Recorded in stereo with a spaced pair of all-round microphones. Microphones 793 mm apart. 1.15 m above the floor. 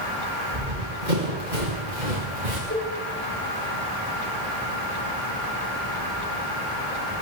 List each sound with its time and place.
0.5 s running footsteps: 70° right (ahead or behind), 6 m; by 2.6 s 55° right (ahead or behind), 5.5 m
2.7 s a cowbell: 15° left (ahead or behind), 9 m